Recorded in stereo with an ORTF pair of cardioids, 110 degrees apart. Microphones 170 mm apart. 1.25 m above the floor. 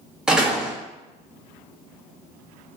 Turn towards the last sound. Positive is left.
turn(degrees=-5)